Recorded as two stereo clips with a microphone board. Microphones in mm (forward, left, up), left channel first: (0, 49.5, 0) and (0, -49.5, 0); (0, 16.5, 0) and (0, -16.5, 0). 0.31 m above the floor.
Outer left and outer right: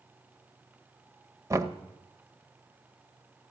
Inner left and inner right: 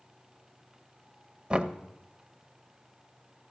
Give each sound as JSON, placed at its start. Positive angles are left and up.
{"t": 1.5, "sound": "knocking", "side_deg": -30, "distance_m": 0.6}